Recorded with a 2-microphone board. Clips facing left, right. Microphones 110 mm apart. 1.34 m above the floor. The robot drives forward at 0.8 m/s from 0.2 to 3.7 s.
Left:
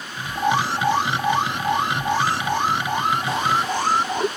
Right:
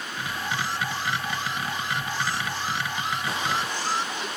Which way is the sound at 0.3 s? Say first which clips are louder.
Left 10 dB; 80° left.